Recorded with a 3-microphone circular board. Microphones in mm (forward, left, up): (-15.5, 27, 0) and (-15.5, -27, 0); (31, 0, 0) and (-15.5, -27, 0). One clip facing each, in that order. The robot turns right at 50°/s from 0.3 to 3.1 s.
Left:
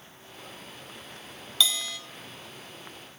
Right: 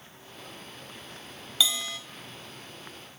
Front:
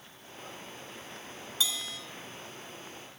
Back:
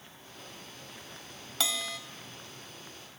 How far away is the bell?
About 3.5 m.